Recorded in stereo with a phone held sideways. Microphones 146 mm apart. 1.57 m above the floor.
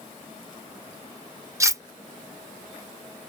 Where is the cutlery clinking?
20° right (ahead or behind).